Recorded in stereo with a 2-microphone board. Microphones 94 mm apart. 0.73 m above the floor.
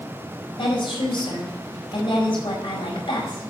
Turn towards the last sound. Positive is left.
turn(degrees=70)  # may be behind; listen again after turning